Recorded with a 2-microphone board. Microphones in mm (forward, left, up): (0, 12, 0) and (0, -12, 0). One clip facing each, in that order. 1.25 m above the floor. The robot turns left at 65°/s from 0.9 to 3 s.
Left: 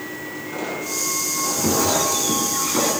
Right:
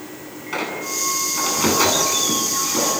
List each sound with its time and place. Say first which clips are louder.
0.5 s a squeak: right 3 dB; 70° right, 10 m; by 2.9 s 160° left, 10 m